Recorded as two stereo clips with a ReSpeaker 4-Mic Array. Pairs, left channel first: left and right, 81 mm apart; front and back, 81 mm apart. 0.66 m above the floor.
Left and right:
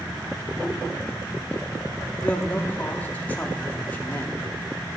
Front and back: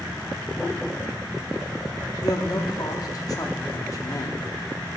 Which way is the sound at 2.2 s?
25° left.